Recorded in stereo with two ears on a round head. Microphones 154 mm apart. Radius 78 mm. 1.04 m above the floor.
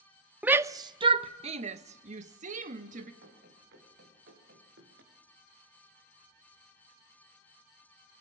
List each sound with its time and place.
0.4 s a shout: 5° right (ahead or behind), 0.5 m; by 3.1 s 45° right (ahead or behind), 1.9 m
3.2 s running footsteps: 60° right (ahead or behind), 7 m